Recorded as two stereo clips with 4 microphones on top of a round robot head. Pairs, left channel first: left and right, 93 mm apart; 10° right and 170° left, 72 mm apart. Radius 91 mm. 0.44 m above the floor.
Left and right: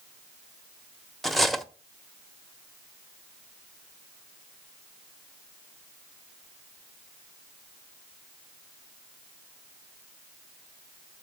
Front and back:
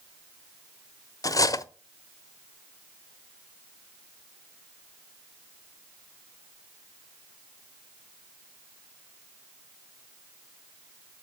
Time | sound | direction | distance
1.2 | cutlery clinking | straight ahead | 0.7 m